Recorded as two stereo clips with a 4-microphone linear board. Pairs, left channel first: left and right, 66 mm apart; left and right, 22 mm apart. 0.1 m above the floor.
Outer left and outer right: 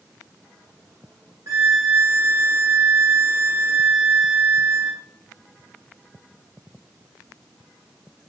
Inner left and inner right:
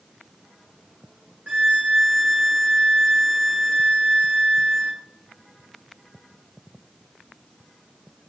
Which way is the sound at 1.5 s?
65° right (ahead or behind).